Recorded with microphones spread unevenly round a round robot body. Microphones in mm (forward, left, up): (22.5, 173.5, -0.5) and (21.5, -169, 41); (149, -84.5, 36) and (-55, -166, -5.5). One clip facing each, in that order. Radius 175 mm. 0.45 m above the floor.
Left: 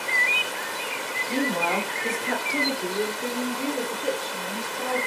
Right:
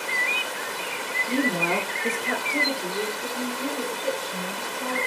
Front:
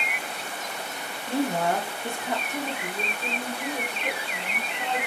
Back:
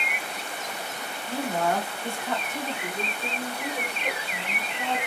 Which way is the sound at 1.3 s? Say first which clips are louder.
Right 1 dB, front 2 dB; 55° right.